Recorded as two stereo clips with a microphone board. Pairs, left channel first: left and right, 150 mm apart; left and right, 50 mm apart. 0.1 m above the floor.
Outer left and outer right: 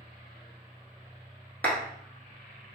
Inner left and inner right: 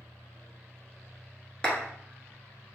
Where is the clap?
10° left (ahead or behind), 1.0 m.